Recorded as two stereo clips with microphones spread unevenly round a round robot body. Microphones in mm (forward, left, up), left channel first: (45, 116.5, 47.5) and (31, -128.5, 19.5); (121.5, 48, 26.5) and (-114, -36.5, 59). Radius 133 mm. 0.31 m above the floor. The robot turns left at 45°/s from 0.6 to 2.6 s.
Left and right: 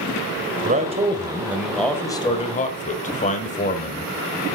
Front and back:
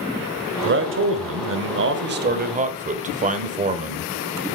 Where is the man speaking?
130° right, 1.4 m; by 4.1 s 140° left, 1.4 m.